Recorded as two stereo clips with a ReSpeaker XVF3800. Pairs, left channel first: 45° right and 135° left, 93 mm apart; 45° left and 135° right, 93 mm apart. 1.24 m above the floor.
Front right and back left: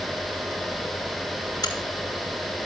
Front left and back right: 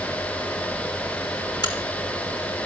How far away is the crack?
About 4 m.